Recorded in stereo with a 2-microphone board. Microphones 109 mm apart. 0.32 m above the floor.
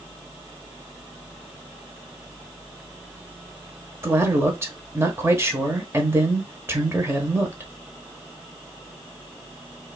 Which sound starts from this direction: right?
A man speaking, at 4.0 s.